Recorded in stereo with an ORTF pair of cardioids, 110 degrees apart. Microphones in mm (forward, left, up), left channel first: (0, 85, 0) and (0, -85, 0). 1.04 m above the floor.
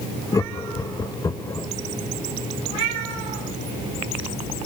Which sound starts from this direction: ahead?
Laughter, at 0.3 s.